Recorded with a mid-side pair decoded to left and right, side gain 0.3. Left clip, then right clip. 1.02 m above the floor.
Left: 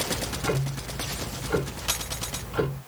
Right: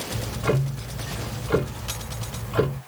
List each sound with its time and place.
0.1 s ticking: 65° right, 1.7 m